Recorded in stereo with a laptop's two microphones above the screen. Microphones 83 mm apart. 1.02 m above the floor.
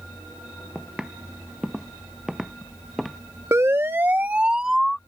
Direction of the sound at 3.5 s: 35° right (ahead or behind).